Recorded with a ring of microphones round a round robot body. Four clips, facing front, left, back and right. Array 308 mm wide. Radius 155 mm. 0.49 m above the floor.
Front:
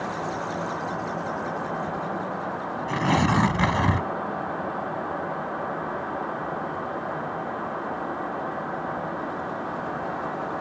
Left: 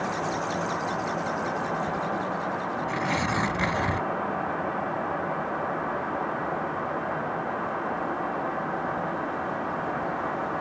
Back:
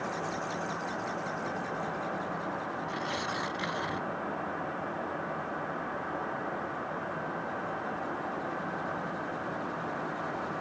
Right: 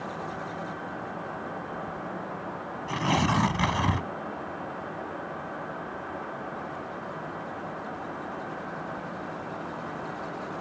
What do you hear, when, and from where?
2.9 s tearing paper: 15° right